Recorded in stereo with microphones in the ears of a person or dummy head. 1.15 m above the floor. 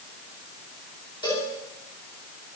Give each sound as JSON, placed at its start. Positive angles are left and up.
{"t": 1.2, "sound": "a cowbell", "side_deg": 25, "distance_m": 2.5}